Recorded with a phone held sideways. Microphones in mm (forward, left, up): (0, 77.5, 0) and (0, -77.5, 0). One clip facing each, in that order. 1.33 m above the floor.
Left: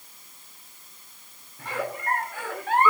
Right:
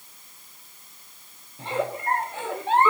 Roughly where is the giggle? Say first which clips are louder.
Right 4 dB; right.